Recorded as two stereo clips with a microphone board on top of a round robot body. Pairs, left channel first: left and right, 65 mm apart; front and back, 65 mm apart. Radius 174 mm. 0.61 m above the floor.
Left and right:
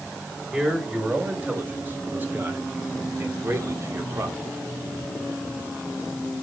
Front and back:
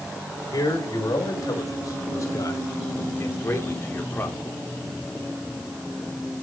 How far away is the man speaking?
About 4 m.